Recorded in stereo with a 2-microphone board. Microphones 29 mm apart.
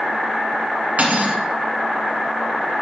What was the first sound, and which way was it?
Cutlery clinking, 55° right (ahead or behind).